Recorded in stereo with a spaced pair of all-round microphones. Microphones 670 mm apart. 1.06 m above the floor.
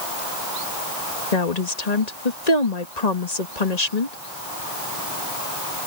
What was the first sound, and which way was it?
A woman speaking, 75° left (ahead or behind).